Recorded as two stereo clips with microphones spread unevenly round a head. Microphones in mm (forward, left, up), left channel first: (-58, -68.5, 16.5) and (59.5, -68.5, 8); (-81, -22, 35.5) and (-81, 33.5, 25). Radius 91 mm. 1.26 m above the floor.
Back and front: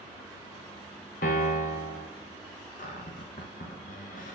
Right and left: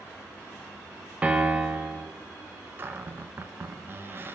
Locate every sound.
1.2 s a piano: 155° left, 1.2 m
2.8 s a cupboard door: 145° left, 0.8 m